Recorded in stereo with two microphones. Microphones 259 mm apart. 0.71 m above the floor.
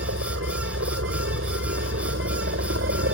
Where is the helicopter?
60° right (ahead or behind); by 3.1 s 55° right (ahead or behind).